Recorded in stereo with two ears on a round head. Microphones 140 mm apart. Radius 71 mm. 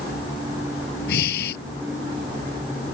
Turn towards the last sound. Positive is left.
turn(degrees=75)  # may be behind; listen again after turning